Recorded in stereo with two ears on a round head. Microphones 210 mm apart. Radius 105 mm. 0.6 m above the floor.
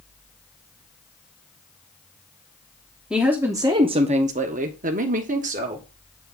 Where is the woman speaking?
5° right (ahead or behind), 0.9 m; by 5.8 s 30° right (ahead or behind), 1.6 m.